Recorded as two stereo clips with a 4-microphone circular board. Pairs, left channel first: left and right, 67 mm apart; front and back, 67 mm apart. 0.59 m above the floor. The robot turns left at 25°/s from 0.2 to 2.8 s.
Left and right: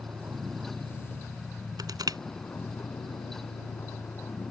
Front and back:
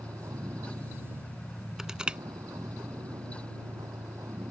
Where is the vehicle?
150° right; by 4.5 s 145° left.